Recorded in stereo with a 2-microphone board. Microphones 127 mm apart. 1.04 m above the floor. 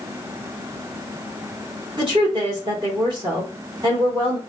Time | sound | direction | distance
2.0 | a woman speaking | 40° right (ahead or behind) | 2.5 m